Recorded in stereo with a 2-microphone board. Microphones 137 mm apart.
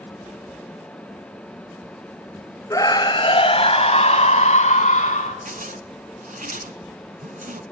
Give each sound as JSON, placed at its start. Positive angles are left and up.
{"t": 2.7, "sound": "a scream", "side_deg": 25, "distance_m": 1.2}
{"t": 5.5, "sound": "a zipper", "side_deg": -80, "distance_m": 0.7}